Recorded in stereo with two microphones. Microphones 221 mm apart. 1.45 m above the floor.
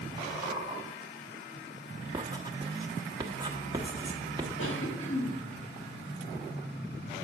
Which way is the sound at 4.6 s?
65° left (ahead or behind).